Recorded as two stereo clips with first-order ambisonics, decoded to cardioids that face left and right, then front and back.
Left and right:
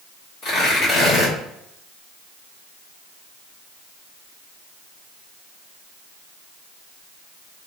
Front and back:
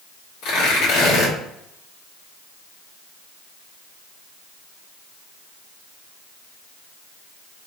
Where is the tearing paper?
25° left, 1.7 m.